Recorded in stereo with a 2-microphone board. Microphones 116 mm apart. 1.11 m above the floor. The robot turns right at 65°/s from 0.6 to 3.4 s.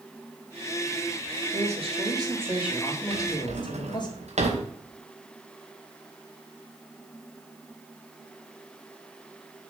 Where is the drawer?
50° right (ahead or behind), 2.5 m; by 4.7 s 70° right (ahead or behind), 2.5 m.